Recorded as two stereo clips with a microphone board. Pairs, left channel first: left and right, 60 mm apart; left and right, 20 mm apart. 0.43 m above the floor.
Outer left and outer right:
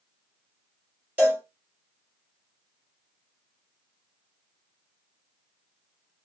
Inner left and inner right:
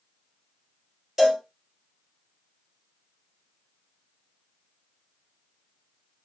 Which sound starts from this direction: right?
A cowbell, at 1.2 s.